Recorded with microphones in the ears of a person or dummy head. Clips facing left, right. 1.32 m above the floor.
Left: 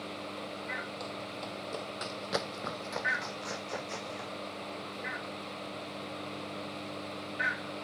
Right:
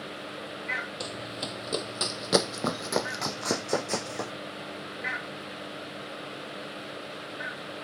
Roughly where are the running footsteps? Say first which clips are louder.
Right 3 dB; right.